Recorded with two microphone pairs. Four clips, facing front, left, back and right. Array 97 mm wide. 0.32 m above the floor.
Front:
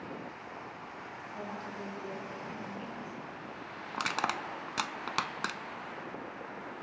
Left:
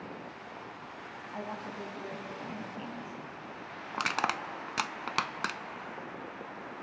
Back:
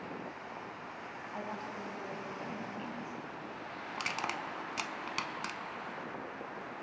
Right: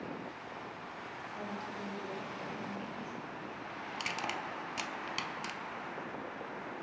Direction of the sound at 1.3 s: 115° left.